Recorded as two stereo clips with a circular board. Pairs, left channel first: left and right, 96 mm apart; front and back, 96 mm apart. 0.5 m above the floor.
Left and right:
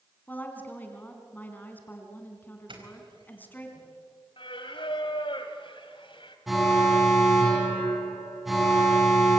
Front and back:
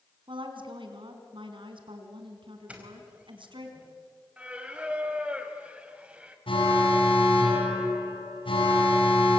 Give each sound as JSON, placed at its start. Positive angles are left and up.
{"t": 0.3, "sound": "a woman speaking", "azimuth_deg": 160, "distance_m": 4.0}
{"t": 2.7, "sound": "a doorbell", "azimuth_deg": -105, "distance_m": 4.5}
{"t": 4.4, "sound": "singing", "azimuth_deg": 105, "distance_m": 2.0}
{"t": 6.5, "sound": "an alarm", "azimuth_deg": 0, "distance_m": 6.0}